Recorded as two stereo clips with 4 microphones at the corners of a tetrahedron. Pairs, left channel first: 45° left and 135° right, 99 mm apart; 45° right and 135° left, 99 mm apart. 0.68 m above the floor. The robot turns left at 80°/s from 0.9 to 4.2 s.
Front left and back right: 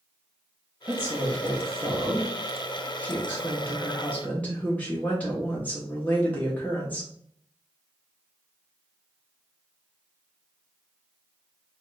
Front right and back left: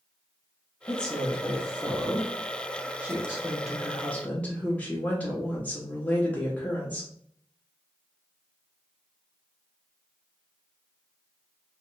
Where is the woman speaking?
95° right, 0.9 m; by 7.1 s straight ahead, 0.9 m.